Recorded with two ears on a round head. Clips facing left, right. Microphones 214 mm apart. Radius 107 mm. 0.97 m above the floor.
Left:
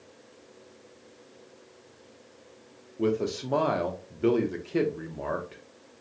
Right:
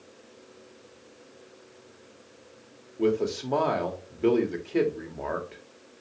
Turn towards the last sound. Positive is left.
turn(degrees=5)  # may be behind; listen again after turning